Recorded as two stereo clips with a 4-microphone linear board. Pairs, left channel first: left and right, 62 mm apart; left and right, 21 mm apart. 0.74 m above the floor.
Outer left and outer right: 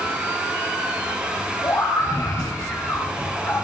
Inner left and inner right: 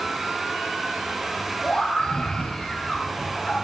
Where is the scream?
65° left (ahead or behind), 3 m.